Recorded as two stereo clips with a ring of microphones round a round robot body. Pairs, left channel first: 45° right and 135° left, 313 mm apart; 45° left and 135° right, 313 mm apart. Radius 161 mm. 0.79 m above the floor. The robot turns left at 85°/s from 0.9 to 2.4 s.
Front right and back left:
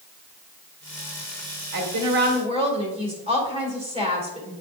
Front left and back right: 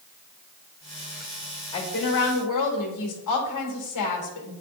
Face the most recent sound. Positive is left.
turn(degrees=65)